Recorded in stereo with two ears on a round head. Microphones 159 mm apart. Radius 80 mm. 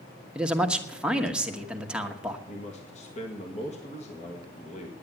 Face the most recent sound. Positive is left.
turn(degrees=40)  # may be behind; listen again after turning